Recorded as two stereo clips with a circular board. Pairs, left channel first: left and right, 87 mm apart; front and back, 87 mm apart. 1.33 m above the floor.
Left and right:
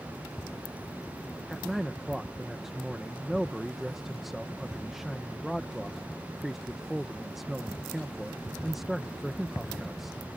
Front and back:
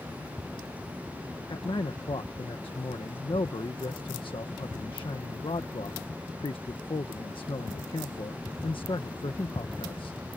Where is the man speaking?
5° right.